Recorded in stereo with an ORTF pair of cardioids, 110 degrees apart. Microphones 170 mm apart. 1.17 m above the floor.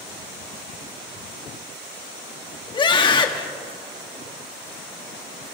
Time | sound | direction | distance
2.7 | a scream | 30° left | 2.5 m